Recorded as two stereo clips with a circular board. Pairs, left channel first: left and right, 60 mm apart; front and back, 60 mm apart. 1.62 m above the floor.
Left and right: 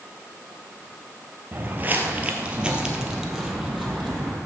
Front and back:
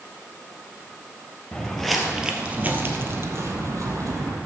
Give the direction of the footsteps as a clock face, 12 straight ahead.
2 o'clock.